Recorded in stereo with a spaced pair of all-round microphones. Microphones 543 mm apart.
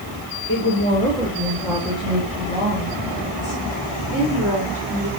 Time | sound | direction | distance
0.5 | a woman speaking | 25° left (ahead or behind) | 1.6 m